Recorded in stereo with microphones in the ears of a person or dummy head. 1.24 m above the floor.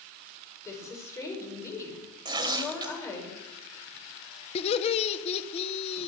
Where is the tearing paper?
25° right (ahead or behind), 1.1 m.